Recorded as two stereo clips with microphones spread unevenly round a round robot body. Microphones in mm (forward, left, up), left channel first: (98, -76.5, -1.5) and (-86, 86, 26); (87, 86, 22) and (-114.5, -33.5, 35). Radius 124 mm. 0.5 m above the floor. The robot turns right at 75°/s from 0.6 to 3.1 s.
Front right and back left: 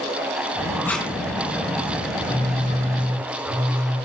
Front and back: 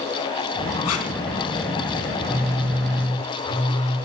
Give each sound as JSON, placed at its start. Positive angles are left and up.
{"t": 0.8, "sound": "tape being pulled", "azimuth_deg": 40, "distance_m": 3.5}
{"t": 2.2, "sound": "a phone buzzing", "azimuth_deg": 145, "distance_m": 8.0}